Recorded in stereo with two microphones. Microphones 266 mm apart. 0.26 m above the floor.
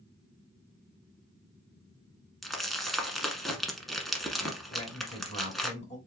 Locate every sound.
2.4 s crumpling: centre (ahead or behind), 1.1 m
4.7 s a man speaking: 25° left (ahead or behind), 3 m